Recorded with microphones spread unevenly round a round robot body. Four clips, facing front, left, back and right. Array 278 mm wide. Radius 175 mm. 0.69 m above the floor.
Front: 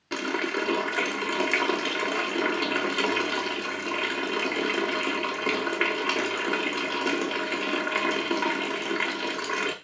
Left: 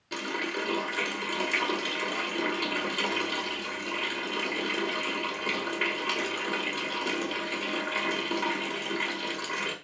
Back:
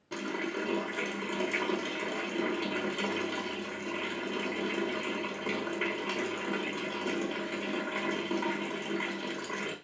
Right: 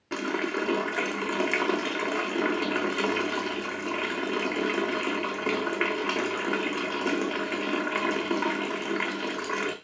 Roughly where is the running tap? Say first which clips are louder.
Right 4 dB, front 6 dB; ahead.